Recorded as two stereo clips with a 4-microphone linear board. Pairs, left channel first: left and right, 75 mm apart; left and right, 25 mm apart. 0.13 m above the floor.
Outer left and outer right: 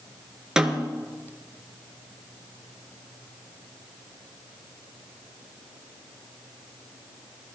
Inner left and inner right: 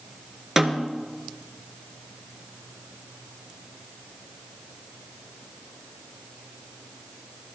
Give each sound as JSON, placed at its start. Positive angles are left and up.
{"t": 0.6, "sound": "a snare drum", "side_deg": -10, "distance_m": 1.1}